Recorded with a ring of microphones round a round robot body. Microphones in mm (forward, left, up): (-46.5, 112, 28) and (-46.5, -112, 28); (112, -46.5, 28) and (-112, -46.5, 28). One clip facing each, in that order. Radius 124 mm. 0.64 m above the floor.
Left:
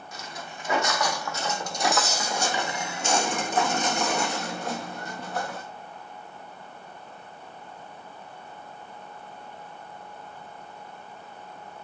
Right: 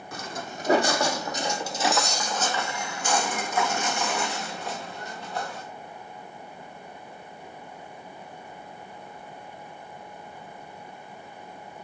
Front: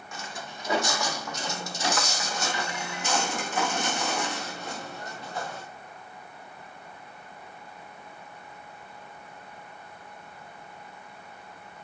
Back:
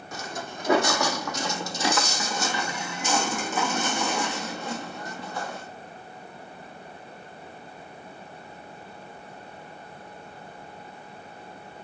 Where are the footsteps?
125° right, 1.4 m; by 5.6 s 135° left, 3 m.